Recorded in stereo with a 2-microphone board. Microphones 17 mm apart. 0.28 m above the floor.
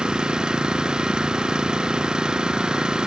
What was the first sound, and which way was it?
An engine running, 60° right (ahead or behind).